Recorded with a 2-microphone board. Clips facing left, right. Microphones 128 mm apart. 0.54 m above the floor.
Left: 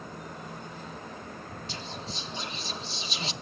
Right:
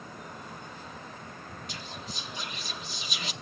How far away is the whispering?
About 0.9 m.